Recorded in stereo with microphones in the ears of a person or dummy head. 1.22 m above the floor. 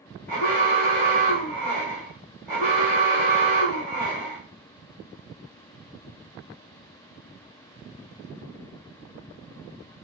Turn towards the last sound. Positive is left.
turn(degrees=5)  # may be behind; listen again after turning